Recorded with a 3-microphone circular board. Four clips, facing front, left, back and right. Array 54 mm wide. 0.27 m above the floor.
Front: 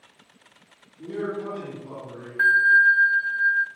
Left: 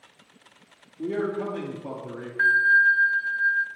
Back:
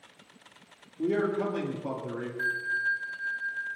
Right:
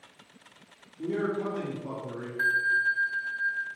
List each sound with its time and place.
1.0 s a man speaking: 160° left, 6 m
2.4 s a bell: 30° left, 0.5 m